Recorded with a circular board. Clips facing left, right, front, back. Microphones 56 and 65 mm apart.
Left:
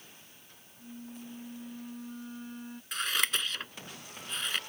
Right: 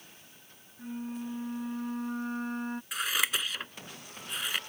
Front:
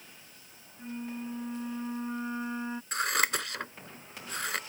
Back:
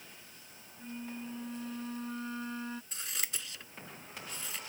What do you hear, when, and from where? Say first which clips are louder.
0.8 s a flute: right 8 dB, front 4 dB; 65° right
2.9 s scissors: left 1 dB, front 14 dB; 5° right